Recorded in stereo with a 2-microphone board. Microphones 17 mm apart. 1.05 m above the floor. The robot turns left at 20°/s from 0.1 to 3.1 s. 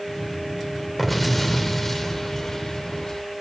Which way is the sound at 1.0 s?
175° left.